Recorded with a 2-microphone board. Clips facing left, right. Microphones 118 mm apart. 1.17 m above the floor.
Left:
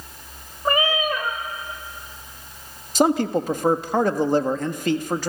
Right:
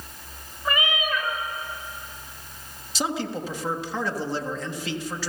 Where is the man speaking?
50° left (ahead or behind), 1.5 m.